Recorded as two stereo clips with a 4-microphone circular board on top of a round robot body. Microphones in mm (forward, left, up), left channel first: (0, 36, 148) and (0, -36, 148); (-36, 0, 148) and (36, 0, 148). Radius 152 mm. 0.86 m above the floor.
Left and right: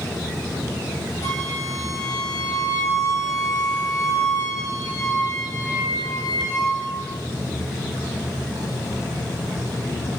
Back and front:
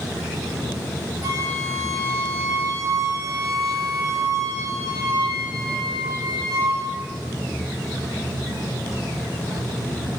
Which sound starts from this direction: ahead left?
A flute, at 1.2 s.